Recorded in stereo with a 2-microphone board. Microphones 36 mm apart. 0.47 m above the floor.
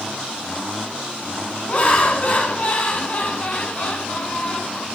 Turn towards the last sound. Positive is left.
turn(degrees=40)  # may be behind; listen again after turning